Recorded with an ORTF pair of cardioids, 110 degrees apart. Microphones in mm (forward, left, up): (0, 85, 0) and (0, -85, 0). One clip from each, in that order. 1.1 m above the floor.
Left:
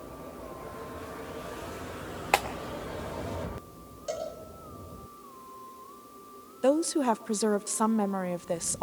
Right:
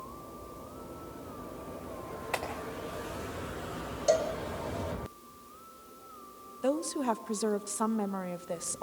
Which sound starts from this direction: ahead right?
A cowbell, at 4.1 s.